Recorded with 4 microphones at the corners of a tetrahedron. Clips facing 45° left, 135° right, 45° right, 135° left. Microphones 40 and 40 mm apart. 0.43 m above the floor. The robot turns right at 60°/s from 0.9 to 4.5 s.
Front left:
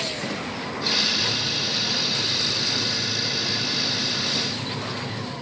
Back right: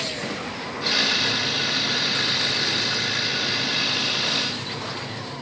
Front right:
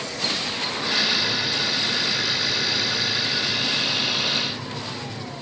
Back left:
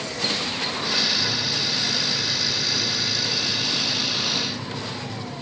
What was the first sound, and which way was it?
A microwave, 155° left.